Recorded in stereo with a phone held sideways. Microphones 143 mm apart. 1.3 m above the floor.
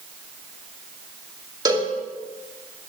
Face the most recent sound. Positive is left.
turn(degrees=-30)  # may be behind; listen again after turning